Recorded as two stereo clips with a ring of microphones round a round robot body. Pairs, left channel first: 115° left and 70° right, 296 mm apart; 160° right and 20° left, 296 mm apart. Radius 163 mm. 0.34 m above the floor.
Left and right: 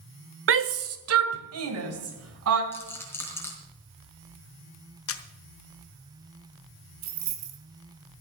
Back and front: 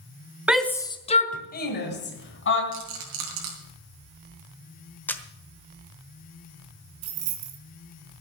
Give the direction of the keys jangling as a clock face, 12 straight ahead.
1 o'clock.